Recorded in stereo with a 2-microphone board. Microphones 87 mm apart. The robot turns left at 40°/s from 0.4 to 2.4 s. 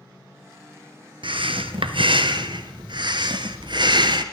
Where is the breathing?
70° right, 0.8 m; by 4.2 s 120° right, 0.8 m.